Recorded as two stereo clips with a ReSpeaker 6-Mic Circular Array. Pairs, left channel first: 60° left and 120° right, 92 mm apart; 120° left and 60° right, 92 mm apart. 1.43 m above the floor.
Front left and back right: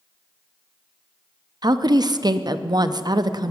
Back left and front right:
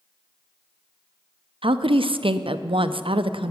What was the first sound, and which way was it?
A woman speaking, 80° right.